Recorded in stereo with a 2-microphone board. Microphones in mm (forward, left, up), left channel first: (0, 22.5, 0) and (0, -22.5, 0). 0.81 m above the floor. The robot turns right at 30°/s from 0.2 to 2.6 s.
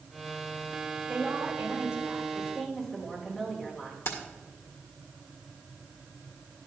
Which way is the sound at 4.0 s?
70° left (ahead or behind).